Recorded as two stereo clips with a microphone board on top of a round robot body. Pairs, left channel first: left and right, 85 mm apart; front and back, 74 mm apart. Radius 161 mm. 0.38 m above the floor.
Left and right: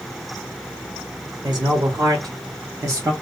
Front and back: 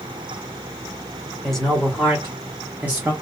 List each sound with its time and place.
1.4 s a man speaking: 80° right, 1.9 m; by 3.1 s 120° right, 1.7 m